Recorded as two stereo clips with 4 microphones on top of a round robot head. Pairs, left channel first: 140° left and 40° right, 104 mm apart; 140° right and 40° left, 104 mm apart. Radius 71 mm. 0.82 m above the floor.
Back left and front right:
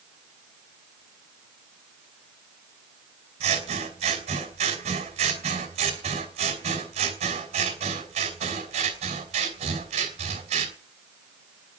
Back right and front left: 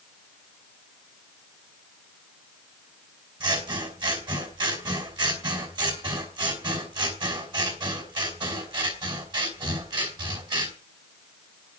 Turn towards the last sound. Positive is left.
turn(degrees=-10)